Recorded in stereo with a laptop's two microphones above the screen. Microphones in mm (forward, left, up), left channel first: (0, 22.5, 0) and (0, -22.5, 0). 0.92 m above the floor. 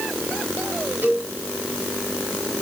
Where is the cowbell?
50° right (ahead or behind), 7.5 m.